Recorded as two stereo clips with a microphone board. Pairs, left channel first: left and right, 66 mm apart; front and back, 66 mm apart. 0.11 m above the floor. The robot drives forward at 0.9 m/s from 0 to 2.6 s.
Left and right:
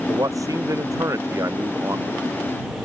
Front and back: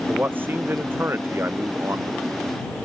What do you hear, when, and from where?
0.1 s a man speaking: 120° right; by 2.2 s 130° right